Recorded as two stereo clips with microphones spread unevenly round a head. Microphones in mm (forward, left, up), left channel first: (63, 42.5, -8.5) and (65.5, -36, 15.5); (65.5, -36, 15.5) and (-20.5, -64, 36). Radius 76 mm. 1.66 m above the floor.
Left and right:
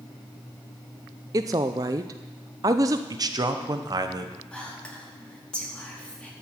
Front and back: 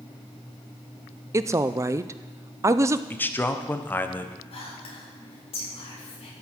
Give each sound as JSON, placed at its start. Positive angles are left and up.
{"t": 1.3, "sound": "a woman speaking", "azimuth_deg": -120, "distance_m": 0.5}
{"t": 3.1, "sound": "a man speaking", "azimuth_deg": -50, "distance_m": 1.2}
{"t": 4.5, "sound": "whispering", "azimuth_deg": 15, "distance_m": 4.0}